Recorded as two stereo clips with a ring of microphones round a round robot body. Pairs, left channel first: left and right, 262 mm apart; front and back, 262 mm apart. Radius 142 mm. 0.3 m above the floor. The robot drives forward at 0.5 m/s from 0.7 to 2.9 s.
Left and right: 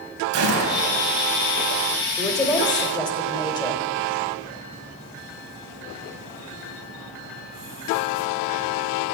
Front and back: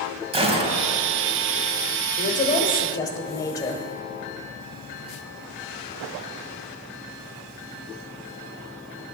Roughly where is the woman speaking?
Ahead left.